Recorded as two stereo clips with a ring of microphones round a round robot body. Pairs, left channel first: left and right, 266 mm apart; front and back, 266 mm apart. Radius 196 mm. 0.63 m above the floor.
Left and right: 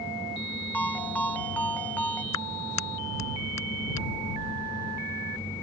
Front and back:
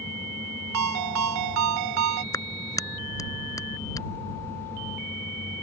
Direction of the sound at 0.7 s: 175° left.